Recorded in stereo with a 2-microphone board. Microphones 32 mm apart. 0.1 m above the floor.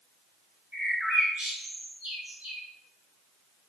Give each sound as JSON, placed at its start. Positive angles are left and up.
{"t": 0.7, "sound": "a bird", "side_deg": -65, "distance_m": 1.4}